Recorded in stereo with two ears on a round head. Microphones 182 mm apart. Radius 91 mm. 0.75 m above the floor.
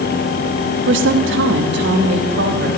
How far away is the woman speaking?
About 1.2 m.